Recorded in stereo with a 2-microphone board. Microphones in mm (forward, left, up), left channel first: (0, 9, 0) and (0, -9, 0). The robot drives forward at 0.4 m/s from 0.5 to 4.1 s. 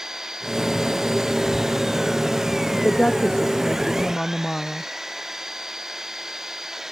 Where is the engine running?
30° right (ahead or behind).